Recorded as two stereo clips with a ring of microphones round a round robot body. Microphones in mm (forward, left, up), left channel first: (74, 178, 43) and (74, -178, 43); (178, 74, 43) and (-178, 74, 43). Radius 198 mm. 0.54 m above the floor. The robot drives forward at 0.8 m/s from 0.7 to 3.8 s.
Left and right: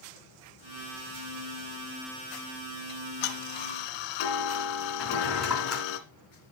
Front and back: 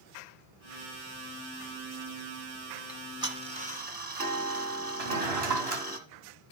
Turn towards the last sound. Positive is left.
turn(degrees=180)